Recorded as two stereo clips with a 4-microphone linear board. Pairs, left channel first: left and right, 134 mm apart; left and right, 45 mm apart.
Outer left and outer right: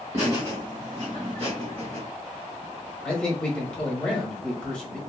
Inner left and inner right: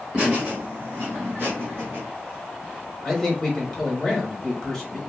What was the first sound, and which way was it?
Laughter, 20° right (ahead or behind).